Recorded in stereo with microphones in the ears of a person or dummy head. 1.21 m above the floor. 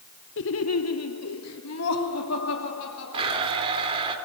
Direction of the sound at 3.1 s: 30° right (ahead or behind).